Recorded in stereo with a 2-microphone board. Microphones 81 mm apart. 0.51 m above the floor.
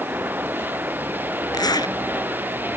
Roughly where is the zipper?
Left.